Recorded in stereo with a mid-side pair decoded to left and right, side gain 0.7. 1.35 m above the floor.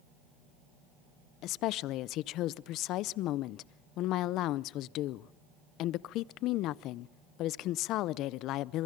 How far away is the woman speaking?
About 0.6 m.